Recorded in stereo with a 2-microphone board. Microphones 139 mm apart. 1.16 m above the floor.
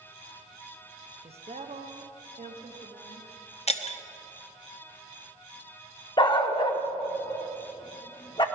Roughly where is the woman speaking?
Right.